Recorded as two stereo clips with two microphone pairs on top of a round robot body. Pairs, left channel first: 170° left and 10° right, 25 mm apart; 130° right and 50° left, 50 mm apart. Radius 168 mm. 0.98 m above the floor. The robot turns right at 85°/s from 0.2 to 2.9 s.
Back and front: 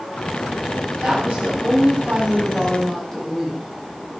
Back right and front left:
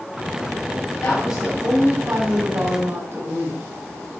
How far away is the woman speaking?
About 8 m.